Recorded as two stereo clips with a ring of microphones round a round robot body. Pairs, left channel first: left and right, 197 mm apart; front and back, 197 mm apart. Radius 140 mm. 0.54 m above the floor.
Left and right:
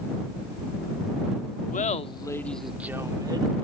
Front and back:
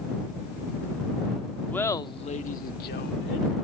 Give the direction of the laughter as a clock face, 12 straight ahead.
9 o'clock.